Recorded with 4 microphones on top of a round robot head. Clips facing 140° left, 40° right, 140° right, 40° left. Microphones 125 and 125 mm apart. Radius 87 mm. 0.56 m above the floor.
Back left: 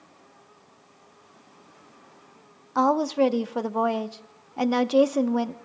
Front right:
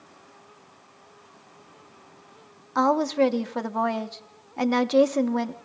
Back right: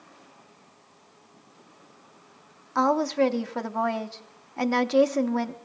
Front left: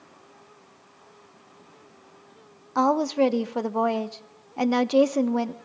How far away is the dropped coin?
I don't hear a dropped coin.